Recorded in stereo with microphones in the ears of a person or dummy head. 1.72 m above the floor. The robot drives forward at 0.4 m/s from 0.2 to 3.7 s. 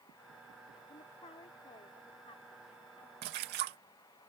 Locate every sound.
0.9 s a woman speaking: 30° left (ahead or behind); by 3.1 s 25° left (ahead or behind)
3.2 s a splash: 55° right (ahead or behind); by 3.8 s 50° right (ahead or behind)